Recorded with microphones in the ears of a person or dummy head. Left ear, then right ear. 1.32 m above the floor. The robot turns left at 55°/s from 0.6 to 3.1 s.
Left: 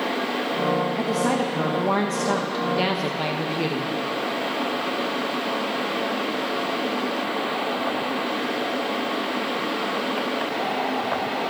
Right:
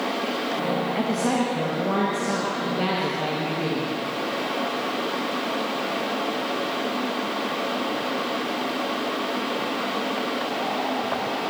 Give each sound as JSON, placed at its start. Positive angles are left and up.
{"t": 0.9, "sound": "a woman speaking", "azimuth_deg": 175, "distance_m": 1.3}